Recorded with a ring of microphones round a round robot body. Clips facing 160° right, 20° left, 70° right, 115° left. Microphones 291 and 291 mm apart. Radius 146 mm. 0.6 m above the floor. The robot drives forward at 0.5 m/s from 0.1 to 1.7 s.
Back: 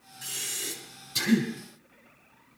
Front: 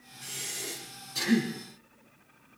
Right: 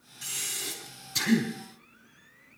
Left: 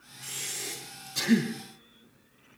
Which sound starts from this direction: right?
Breathing, at 0.2 s.